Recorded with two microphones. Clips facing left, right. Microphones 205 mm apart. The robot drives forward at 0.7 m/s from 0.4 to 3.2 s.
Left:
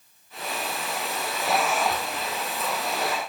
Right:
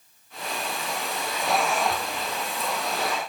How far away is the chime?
I don't hear a chime.